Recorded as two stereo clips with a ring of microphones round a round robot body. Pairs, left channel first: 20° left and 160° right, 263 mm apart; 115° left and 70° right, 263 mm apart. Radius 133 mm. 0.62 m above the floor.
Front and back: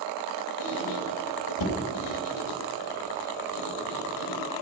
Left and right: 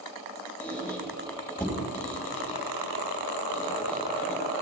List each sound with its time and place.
0.6 s a squeak: 30° left, 2.5 m